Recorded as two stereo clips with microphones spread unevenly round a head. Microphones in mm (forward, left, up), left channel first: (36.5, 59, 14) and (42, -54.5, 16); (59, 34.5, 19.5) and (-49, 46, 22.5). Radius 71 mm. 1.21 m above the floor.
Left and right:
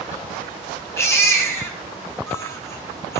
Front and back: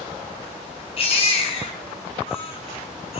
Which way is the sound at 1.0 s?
25° left.